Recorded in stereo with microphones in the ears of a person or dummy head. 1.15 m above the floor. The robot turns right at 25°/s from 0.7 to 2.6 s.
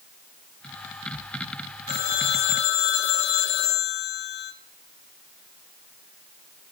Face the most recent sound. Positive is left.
turn(degrees=80)